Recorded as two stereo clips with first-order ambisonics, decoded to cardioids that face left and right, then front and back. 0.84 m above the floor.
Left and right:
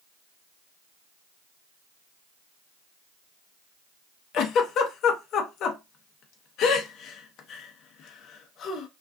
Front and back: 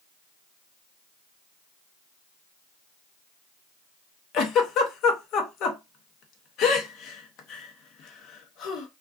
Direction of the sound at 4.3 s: 45° left.